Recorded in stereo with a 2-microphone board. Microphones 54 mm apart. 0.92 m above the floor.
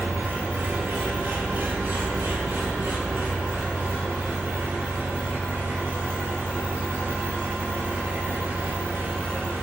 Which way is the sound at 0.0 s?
50° right (ahead or behind).